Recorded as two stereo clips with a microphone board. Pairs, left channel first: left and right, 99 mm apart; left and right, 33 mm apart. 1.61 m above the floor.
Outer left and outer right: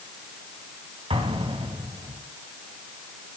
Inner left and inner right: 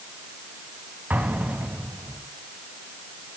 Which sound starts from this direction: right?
An explosion, at 1.1 s.